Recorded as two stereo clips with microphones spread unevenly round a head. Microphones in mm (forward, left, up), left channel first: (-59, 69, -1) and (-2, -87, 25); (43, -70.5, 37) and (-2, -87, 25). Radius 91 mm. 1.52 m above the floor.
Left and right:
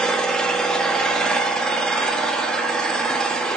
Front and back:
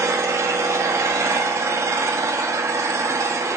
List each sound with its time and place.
0.0 s an engine running: 160° right, 1.3 m